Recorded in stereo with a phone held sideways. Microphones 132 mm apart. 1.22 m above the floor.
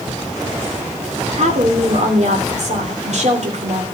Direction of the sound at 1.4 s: 60° right (ahead or behind).